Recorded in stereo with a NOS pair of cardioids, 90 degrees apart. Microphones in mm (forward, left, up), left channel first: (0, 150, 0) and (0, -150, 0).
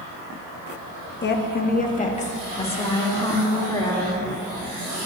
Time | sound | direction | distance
1.2 | a woman speaking | 35° left | 1.3 m